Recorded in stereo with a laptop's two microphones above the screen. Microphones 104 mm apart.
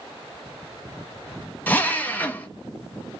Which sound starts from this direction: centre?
A drill, at 1.7 s.